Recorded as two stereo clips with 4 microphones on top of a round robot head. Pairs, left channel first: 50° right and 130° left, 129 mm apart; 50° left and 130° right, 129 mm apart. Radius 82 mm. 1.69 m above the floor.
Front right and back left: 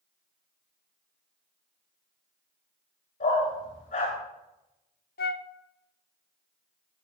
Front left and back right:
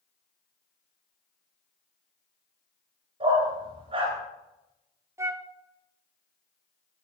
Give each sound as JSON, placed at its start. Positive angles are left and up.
{"t": 3.2, "sound": "a dog barking", "azimuth_deg": -85, "distance_m": 10.0}
{"t": 5.2, "sound": "a flute", "azimuth_deg": -60, "distance_m": 0.7}